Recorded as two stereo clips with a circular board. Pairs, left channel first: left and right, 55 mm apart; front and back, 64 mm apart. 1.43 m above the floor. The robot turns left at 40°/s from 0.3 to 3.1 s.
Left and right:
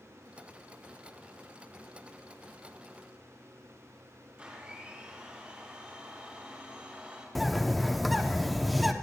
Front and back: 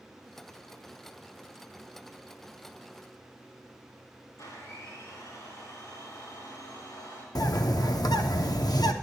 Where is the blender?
20° right, 4 m.